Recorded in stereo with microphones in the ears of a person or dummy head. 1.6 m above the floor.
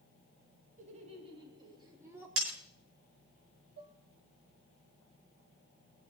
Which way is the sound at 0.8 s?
45° right (ahead or behind).